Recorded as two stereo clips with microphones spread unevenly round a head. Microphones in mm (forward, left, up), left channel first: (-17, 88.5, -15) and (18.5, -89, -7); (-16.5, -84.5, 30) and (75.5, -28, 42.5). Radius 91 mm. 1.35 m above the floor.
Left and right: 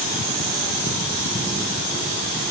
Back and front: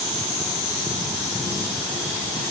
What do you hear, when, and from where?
Only background noise.